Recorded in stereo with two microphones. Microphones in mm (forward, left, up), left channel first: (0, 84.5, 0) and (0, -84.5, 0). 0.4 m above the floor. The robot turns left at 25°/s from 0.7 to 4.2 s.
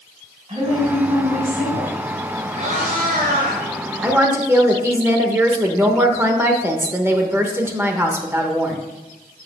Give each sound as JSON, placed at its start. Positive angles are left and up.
{"t": 0.5, "sound": "a woman speaking", "azimuth_deg": -40, "distance_m": 1.9}
{"t": 2.5, "sound": "a cat meowing", "side_deg": -40, "distance_m": 2.5}
{"t": 4.0, "sound": "a woman speaking", "side_deg": -10, "distance_m": 0.9}